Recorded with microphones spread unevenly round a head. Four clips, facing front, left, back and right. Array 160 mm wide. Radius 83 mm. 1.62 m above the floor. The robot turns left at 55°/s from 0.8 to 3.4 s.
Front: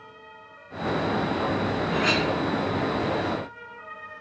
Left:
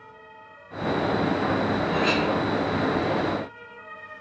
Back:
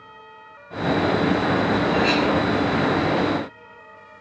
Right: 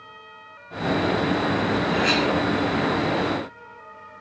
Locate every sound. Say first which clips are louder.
1.9 s a clink: right 1 dB, back 5 dB; 25° left, 2.5 m; by 2.3 s straight ahead, 2.5 m